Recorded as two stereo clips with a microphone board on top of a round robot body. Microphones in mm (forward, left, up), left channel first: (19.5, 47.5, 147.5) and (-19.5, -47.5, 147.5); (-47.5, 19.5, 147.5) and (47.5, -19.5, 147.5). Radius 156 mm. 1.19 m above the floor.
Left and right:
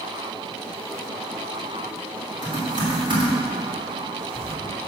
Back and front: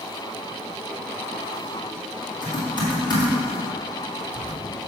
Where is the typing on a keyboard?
155° right, 2.5 m.